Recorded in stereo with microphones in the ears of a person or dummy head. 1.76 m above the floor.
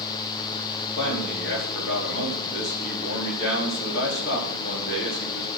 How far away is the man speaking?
About 4.5 m.